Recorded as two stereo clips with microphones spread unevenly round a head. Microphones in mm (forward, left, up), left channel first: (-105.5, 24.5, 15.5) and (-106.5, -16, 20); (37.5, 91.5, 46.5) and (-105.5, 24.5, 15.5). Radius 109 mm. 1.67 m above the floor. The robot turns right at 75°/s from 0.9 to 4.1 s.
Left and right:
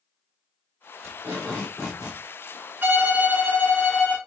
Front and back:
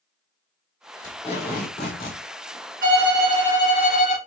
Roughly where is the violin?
Right.